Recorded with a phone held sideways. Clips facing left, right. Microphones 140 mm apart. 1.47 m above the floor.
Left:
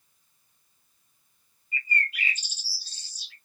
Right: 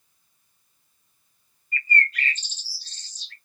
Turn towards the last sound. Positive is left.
turn(degrees=10)  # may be behind; listen again after turning